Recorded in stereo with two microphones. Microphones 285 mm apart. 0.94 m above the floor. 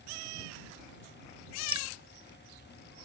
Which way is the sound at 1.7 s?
75° right (ahead or behind).